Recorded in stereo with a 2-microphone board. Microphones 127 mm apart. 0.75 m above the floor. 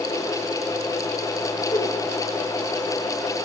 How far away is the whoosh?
About 2 m.